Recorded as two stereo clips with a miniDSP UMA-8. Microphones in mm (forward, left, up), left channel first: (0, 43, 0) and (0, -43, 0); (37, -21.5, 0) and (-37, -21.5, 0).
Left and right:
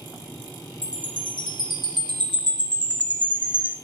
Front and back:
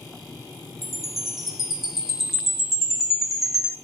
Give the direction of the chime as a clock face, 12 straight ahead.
3 o'clock.